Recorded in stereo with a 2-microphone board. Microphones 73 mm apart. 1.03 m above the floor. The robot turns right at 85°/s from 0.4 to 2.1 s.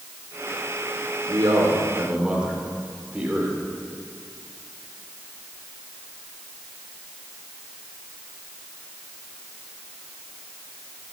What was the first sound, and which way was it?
A man speaking, 85° right.